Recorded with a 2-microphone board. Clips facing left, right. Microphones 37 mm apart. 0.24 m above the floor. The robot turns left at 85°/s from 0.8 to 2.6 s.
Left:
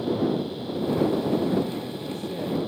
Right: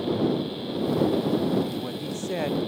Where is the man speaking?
35° right; by 2.6 s 115° right.